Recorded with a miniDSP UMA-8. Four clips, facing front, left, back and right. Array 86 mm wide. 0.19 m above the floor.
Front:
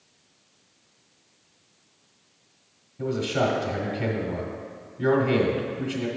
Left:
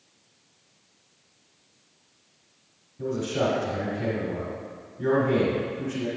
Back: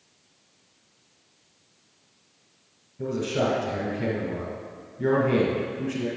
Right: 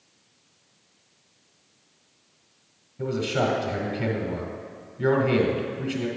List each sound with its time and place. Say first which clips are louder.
3.0 s a man speaking: right 1 dB, front 1 dB; 60° right, 1.4 m